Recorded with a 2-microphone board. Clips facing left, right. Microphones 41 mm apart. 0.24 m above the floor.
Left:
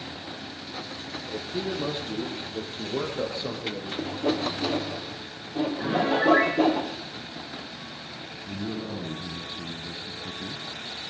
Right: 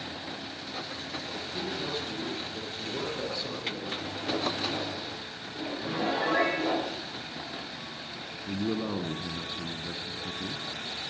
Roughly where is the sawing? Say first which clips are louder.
Left 6 dB; left.